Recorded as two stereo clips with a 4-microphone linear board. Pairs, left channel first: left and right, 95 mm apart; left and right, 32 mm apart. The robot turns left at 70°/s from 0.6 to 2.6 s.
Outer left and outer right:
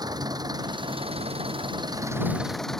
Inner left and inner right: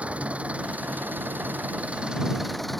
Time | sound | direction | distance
0.0 | an engine running | 45° right | ?